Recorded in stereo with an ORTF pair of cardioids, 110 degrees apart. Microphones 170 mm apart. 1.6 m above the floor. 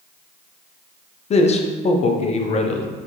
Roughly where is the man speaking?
Ahead left.